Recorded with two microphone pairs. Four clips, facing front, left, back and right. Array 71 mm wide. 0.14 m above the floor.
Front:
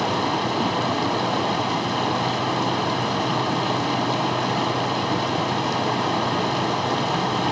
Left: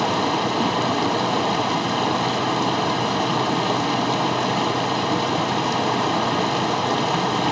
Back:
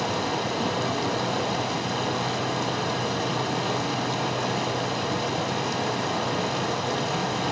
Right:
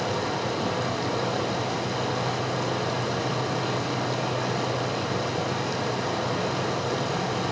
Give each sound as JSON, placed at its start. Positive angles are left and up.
{"t": 0.0, "sound": "running water", "azimuth_deg": 70, "distance_m": 1.7}